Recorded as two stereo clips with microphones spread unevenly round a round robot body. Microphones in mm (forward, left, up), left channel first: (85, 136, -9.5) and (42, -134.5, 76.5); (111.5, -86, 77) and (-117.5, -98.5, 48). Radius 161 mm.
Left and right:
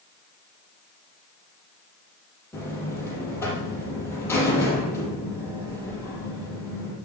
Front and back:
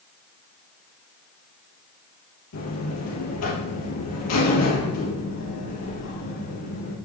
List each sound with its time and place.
2.5 s a buzzer: straight ahead, 3.5 m